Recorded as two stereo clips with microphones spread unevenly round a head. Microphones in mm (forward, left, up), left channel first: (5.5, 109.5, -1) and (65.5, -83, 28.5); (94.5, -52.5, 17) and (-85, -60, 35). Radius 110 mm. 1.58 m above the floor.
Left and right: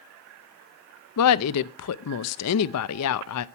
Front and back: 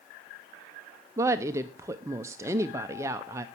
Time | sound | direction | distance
1.2 | a woman speaking | 105° left | 0.5 m